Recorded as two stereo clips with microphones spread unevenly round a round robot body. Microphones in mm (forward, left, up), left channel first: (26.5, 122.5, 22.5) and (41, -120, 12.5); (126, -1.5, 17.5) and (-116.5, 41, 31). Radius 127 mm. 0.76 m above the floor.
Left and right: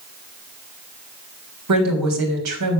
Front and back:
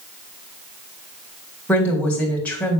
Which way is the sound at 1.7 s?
95° right.